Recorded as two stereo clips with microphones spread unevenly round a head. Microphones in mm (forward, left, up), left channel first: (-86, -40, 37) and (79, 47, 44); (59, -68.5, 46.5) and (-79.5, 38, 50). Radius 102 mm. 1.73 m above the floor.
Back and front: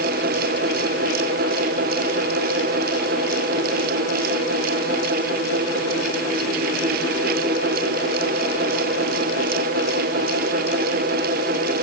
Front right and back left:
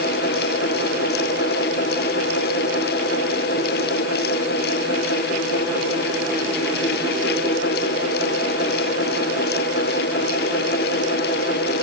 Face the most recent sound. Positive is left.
No sound to turn to.